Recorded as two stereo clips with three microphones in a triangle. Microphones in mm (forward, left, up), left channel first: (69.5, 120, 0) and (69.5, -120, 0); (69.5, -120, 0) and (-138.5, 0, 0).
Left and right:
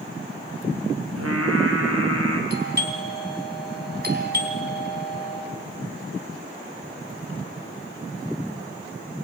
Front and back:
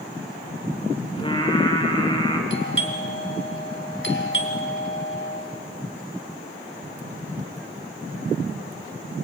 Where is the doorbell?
50° right, 3 m.